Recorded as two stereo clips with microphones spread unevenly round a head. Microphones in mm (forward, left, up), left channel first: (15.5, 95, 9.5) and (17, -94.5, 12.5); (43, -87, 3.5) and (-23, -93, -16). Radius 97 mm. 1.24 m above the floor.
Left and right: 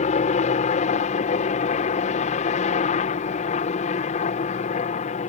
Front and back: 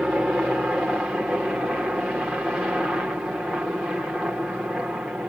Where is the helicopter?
110° left.